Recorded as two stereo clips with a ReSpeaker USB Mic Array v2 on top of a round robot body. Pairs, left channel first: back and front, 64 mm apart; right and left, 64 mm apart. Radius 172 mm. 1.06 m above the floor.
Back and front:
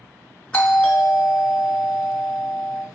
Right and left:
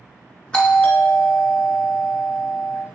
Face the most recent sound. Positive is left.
turn(degrees=-140)